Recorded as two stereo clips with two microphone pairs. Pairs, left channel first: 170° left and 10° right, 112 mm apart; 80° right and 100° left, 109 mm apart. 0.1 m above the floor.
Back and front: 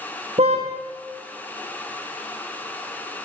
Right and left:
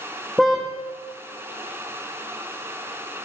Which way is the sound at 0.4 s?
10° left.